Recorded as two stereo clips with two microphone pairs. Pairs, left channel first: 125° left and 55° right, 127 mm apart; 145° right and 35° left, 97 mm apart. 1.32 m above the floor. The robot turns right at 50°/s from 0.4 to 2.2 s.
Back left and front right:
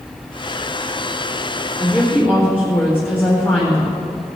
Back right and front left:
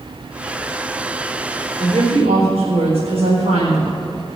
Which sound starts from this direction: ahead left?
A woman speaking, at 1.8 s.